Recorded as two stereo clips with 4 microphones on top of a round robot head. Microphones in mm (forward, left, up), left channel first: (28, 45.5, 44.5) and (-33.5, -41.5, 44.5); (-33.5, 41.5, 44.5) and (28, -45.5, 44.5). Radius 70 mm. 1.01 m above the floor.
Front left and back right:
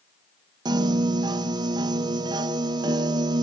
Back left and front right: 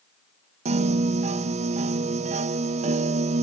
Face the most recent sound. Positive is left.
turn(degrees=-75)